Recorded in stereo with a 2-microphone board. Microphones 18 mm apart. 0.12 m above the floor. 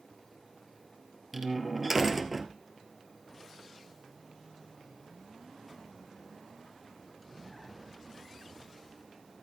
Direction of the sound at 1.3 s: 10° right (ahead or behind).